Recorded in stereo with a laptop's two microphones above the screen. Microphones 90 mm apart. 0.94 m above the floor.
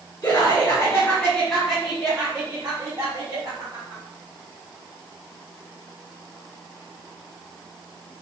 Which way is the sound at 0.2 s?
45° left (ahead or behind).